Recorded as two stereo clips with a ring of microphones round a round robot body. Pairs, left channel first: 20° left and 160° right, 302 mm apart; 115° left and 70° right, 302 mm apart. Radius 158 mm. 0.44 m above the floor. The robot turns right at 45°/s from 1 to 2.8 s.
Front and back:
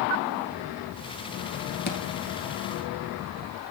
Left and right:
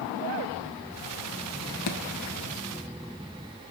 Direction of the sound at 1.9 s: 80° left.